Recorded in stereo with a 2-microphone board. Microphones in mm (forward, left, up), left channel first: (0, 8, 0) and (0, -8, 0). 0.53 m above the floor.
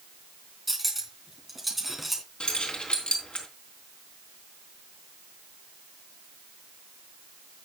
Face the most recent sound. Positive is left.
turn(degrees=80)